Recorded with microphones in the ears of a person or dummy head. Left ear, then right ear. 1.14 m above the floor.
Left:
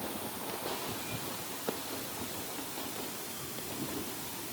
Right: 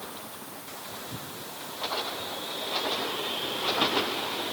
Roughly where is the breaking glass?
No breaking glass in this recording.